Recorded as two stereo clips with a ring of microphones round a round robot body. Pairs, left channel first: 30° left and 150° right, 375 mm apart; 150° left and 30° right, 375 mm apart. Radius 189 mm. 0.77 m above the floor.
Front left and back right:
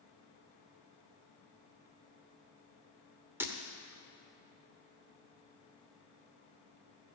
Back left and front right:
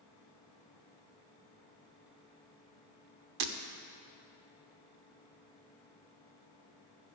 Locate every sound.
3.4 s breaking glass: 65° right, 1.1 m